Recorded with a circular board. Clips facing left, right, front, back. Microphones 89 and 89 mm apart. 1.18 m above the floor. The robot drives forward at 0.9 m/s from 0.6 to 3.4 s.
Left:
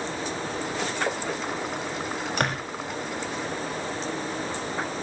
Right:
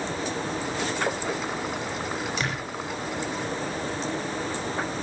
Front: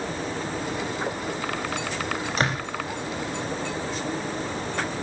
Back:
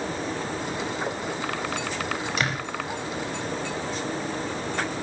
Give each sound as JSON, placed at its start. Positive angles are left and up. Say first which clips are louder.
{"t": 2.4, "sound": "a door slam", "louder": "left 3 dB, front 5 dB", "azimuth_deg": 55, "distance_m": 5.5}